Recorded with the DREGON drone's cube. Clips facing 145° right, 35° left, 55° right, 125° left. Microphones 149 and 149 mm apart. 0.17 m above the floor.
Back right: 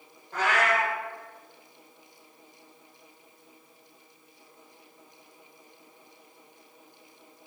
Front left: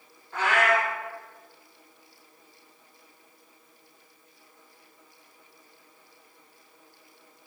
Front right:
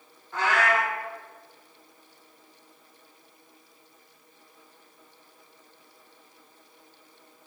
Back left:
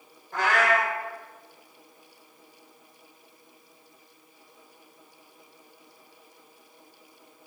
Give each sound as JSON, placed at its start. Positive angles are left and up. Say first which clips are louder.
{"t": 0.3, "sound": "a cat meowing", "louder": "front left 2 dB, back left 1 dB", "azimuth_deg": 165, "distance_m": 1.2}